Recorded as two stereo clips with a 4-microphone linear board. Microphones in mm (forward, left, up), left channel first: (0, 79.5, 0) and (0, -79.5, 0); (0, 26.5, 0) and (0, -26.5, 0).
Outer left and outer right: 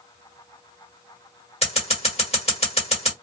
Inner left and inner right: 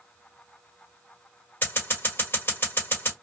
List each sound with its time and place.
1.6 s scissors: 40° left (ahead or behind), 1.5 m